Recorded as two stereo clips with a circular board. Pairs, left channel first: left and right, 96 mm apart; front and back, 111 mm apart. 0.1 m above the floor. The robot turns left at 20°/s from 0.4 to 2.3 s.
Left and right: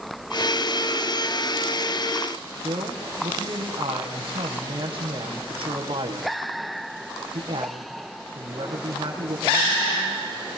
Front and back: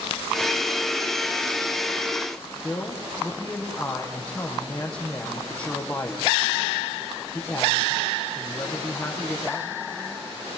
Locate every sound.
2.6 s a man speaking: 80° right, 5 m